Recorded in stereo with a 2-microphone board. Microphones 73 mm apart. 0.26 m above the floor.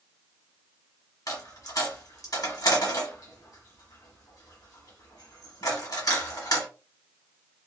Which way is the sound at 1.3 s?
60° left (ahead or behind).